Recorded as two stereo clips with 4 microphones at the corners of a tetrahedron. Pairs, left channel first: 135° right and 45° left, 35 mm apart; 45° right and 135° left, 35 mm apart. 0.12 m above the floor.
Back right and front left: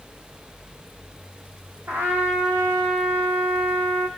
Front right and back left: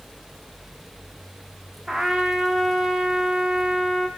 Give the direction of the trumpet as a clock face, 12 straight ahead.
10 o'clock.